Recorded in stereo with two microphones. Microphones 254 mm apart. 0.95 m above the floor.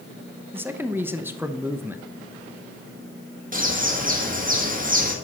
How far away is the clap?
No clap in this recording.